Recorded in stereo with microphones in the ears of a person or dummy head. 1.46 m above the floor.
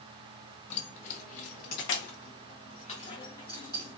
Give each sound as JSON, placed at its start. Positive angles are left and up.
{"t": 0.7, "sound": "keys jangling", "side_deg": 35, "distance_m": 1.0}